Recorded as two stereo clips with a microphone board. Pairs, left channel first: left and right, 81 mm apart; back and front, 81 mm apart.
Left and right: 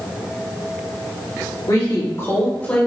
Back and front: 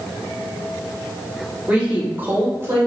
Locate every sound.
1.7 s a woman speaking: 70° left, 1.8 m; by 2.9 s 20° left, 1.4 m